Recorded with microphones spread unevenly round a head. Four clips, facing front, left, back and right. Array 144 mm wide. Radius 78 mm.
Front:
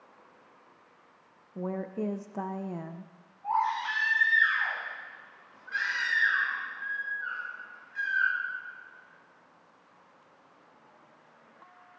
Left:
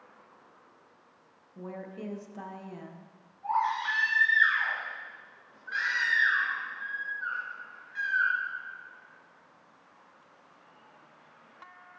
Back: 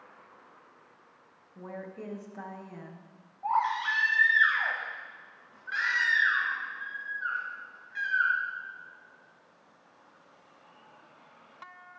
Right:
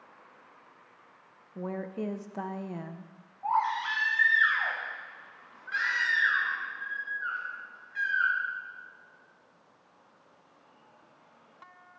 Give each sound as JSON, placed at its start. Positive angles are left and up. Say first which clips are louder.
{"t": 1.6, "sound": "a woman speaking", "louder": "right 6 dB, front 8 dB", "azimuth_deg": -30, "distance_m": 0.9}
{"t": 3.4, "sound": "a baby crying", "louder": "right 1 dB, back 1 dB", "azimuth_deg": -150, "distance_m": 4.0}